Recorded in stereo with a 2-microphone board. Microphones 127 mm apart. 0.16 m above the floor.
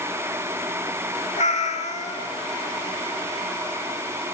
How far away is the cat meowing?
About 0.7 m.